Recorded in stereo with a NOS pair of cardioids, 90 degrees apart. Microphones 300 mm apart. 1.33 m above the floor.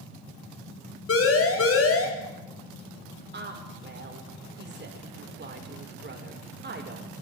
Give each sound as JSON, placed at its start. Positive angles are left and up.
{"t": 1.1, "sound": "a siren", "azimuth_deg": 45, "distance_m": 4.0}
{"t": 3.3, "sound": "a woman speaking", "azimuth_deg": -35, "distance_m": 5.0}